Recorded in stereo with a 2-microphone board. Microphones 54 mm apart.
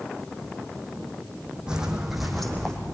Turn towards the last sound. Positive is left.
turn(degrees=10)  # may be behind; listen again after turning